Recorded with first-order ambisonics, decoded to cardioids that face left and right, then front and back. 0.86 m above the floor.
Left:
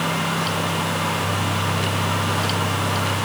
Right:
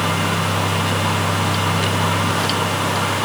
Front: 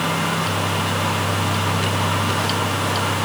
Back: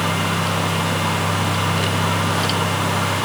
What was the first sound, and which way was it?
Only background noise.